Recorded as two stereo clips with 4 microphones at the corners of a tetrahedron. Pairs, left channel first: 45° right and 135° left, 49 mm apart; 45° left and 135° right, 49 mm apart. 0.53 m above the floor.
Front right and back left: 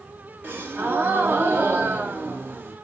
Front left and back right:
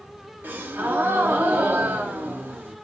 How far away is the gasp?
About 0.6 m.